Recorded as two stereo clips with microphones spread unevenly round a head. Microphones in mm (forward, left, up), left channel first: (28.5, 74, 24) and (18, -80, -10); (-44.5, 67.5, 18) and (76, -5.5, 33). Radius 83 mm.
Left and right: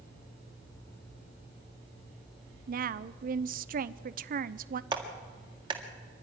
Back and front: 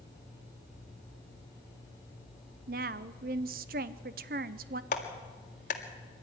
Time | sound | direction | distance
2.7 | a woman speaking | 65° right | 0.6 m
4.9 | a clap | 160° right | 1.8 m